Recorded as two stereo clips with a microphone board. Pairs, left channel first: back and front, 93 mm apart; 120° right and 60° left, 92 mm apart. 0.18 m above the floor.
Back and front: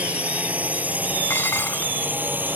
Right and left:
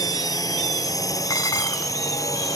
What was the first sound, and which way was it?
A drone, 75° right.